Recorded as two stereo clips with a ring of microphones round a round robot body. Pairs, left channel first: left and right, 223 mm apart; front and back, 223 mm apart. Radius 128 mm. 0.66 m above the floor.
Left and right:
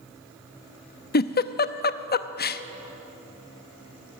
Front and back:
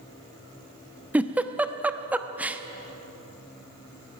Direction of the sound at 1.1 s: 100° left.